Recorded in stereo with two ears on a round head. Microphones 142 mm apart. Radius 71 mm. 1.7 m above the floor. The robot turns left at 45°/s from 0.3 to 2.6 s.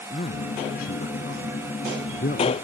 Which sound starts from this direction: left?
A man speaking, at 0.1 s.